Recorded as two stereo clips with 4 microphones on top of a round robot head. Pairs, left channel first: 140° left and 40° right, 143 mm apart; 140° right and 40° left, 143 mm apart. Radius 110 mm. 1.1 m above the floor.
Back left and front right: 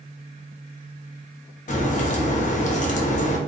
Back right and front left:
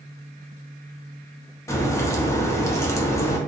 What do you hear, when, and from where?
1.7 s a crack: 150° left, 0.6 m